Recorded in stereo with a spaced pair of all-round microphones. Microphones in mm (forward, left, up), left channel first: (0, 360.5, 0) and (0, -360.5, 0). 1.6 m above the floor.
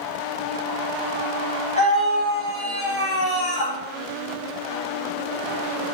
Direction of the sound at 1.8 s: 10° left (ahead or behind).